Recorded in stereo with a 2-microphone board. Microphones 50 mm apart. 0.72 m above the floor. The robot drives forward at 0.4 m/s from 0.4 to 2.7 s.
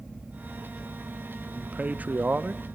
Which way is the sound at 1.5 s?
25° right (ahead or behind).